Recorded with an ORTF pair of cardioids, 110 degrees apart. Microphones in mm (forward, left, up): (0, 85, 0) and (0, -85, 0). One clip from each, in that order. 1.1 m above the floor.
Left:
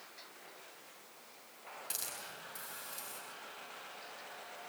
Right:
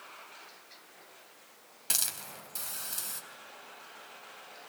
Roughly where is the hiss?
Ahead right.